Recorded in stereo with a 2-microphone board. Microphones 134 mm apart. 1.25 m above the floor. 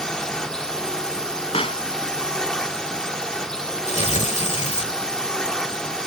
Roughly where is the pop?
Left.